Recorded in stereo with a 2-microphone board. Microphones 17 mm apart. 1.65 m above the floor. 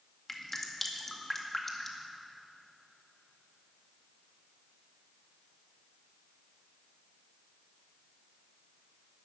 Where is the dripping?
20° left (ahead or behind), 2.0 m.